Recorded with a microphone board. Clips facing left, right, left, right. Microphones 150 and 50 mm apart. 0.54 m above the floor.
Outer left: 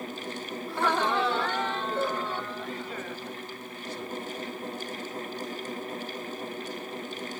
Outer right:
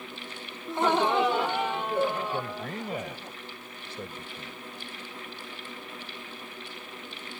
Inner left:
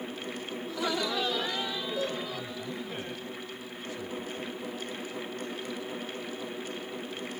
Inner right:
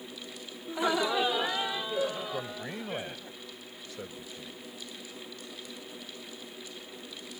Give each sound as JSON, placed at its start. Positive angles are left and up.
{"t": 0.7, "sound": "laughter", "side_deg": -20}
{"t": 2.3, "sound": "a man speaking", "side_deg": -60}